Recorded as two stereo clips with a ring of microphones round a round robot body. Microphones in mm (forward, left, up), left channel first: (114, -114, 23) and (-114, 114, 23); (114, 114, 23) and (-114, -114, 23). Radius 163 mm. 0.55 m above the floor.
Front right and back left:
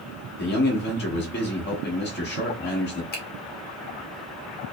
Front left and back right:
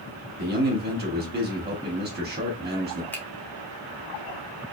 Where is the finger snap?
35° right, 1.0 m.